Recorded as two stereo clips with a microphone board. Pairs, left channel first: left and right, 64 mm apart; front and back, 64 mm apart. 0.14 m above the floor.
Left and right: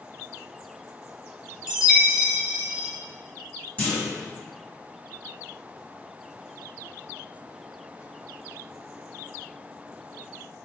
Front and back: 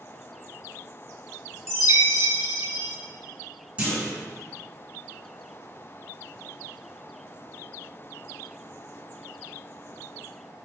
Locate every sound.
1.7 s a chime: 165° right, 1.0 m
3.8 s a clunk: 135° left, 1.8 m